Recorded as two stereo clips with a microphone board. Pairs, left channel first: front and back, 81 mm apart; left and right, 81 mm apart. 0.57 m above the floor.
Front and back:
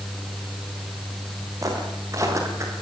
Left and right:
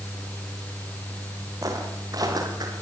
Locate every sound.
1.6 s footsteps: 135° right, 8 m; by 2.7 s 125° right, 8.5 m